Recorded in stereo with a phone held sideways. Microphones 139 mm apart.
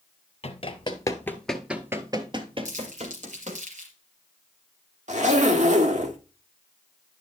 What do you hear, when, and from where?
0.4 s running footsteps: 45° left (ahead or behind), 1.2 m; by 3.6 s 55° right (ahead or behind), 2.0 m
2.6 s crumpling: 60° right (ahead or behind), 4 m
5.1 s a zipper: 60° right (ahead or behind), 1.3 m